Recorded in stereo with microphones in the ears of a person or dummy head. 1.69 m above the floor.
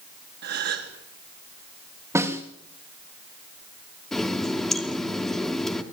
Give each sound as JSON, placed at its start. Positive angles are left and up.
{"t": 0.4, "sound": "a gasp", "side_deg": -65, "distance_m": 3.5}
{"t": 2.1, "sound": "a snare drum", "side_deg": -15, "distance_m": 3.0}
{"t": 4.1, "sound": "a running tap", "side_deg": 5, "distance_m": 3.0}